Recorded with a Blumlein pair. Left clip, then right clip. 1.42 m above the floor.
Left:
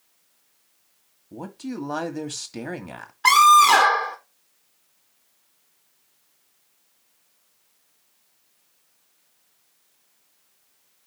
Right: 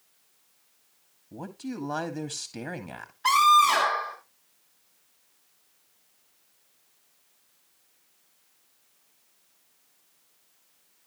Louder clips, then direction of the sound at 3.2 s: Left 6 dB; 35° left.